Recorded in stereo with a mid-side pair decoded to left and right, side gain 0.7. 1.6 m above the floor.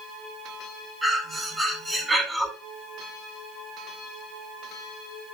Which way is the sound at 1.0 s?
10° right.